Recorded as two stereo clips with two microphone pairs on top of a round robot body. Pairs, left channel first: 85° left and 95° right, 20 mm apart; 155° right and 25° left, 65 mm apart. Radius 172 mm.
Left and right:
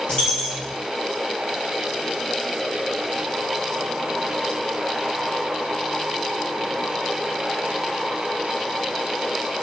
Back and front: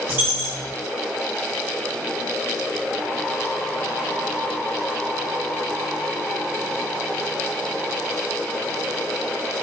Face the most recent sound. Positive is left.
turn(degrees=75)